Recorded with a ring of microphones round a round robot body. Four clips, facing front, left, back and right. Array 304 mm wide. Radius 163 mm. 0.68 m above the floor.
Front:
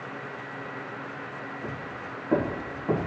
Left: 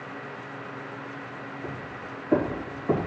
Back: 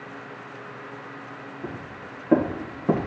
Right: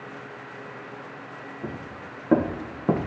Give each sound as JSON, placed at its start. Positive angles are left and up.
{"t": 1.6, "sound": "footsteps", "azimuth_deg": -100, "distance_m": 3.0}